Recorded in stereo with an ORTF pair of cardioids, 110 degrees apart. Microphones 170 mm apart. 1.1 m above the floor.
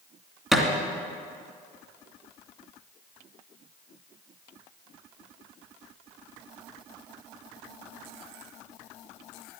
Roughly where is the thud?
Ahead.